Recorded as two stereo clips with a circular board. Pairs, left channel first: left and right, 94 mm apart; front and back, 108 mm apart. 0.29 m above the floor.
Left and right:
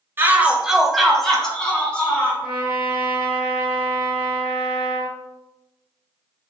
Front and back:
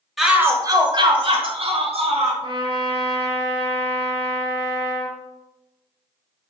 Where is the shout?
85° right, 0.9 m; by 2.3 s 170° left, 3 m.